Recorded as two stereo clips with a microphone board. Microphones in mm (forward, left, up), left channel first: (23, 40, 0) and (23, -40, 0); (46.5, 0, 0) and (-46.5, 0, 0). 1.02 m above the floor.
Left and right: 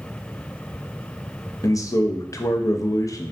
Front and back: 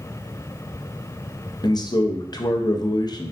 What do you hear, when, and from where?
1.6 s a man speaking: 40° left, 0.5 m